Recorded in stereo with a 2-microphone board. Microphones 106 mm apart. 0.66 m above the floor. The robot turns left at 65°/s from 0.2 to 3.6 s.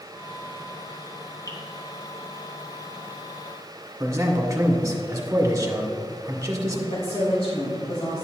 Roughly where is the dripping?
Left.